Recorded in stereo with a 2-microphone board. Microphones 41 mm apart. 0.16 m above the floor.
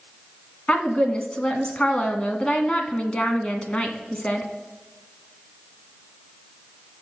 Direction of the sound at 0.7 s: 30° left (ahead or behind).